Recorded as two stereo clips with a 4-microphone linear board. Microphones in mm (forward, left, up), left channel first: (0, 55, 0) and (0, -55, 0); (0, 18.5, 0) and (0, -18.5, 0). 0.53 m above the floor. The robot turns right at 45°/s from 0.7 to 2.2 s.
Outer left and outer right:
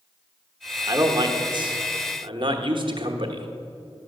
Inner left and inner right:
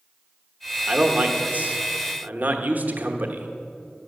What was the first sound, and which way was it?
A man speaking, 140° right.